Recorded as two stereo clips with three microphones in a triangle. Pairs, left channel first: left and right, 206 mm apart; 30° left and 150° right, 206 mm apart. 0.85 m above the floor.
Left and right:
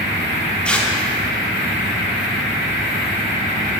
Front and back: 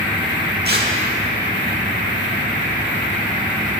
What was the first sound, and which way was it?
Tearing paper, 175° left.